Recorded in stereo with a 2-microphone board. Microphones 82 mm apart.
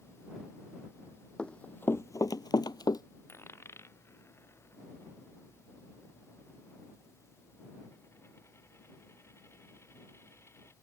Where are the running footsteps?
10° left (ahead or behind); by 3.0 s 55° left (ahead or behind).